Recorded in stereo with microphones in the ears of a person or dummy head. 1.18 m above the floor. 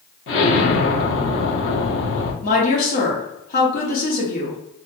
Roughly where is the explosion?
Left.